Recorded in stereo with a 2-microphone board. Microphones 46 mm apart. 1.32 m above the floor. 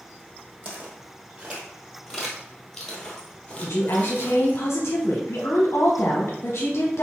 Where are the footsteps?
30° right (ahead or behind), 1.7 m; by 4.6 s 40° left (ahead or behind), 1.8 m.